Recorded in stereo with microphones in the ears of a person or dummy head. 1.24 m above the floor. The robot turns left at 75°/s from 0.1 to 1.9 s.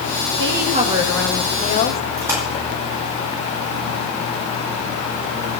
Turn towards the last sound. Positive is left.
turn(degrees=-15)  # may be behind; listen again after turning